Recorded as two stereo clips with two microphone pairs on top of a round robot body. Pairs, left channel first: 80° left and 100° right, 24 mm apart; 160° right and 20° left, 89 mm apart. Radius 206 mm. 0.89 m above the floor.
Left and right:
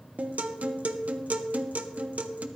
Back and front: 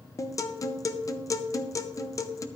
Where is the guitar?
115° right, 0.8 m.